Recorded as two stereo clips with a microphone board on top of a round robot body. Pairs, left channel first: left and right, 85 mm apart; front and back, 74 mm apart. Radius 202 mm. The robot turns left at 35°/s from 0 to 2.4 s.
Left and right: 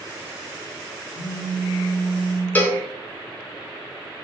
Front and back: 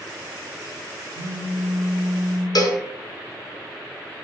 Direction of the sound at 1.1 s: 145° left.